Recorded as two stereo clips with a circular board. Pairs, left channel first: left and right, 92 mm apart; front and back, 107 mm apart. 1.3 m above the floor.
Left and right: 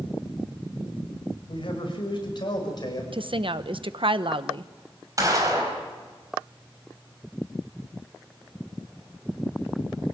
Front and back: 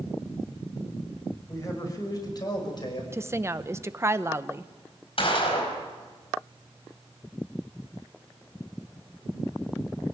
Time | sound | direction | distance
1.5 | a man speaking | 60° left | 5.5 m
3.1 | a woman speaking | 115° right | 0.9 m
5.2 | a gunshot | 35° right | 5 m